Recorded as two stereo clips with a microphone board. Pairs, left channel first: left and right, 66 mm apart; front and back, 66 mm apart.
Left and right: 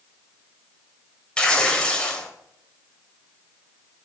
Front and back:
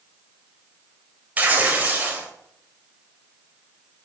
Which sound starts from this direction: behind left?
Tearing paper, at 1.4 s.